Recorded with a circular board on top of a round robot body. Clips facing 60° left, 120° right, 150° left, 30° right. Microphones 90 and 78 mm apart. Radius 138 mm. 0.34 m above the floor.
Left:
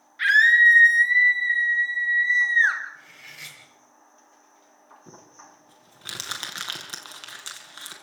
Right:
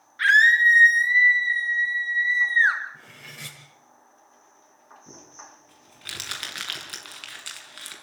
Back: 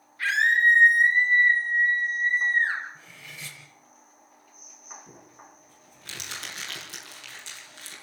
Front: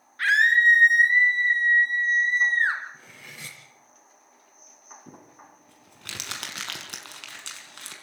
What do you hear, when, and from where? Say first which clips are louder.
0.2 s a scream: even, front 2 dB; 60° right, 5.5 m; by 2.8 s 50° right, 5.5 m
2.9 s cutlery clinking: right 2 dB, even; 70° right, 5 m
5.1 s crumpling: right 1 dB, front 2 dB; 5° right, 5 m